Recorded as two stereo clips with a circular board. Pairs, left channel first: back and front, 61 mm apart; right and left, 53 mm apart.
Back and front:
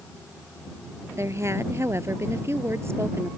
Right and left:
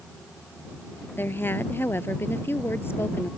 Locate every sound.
1.2 s a woman speaking: 40° right; by 3.3 s 45° right